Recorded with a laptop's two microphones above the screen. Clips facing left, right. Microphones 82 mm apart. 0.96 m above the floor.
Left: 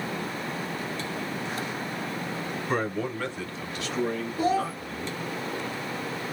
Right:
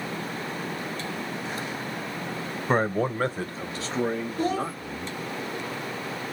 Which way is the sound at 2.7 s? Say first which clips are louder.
Right 5 dB; 45° right (ahead or behind).